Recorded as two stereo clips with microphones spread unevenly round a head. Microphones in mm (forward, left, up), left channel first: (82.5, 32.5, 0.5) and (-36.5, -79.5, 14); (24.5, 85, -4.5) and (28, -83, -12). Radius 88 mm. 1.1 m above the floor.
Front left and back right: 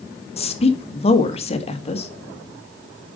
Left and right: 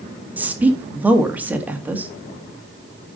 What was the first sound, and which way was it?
A woman speaking, 10° right.